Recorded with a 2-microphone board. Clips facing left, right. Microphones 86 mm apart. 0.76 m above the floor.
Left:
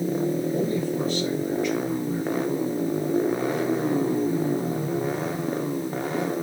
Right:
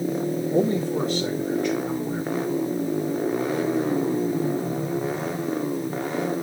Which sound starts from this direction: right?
A man speaking, at 0.5 s.